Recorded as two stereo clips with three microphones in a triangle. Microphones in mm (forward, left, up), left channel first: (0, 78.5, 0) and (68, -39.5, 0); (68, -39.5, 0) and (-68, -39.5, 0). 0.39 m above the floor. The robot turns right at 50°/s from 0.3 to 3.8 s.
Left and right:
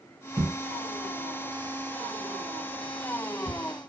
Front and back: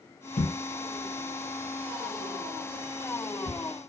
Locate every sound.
0.4 s a thud: 5° left, 5 m; by 3.6 s 170° left, 5 m